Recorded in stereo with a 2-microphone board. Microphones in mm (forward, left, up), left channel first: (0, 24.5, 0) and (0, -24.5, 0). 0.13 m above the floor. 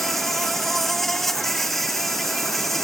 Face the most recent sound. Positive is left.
turn(degrees=5)  # may be behind; listen again after turning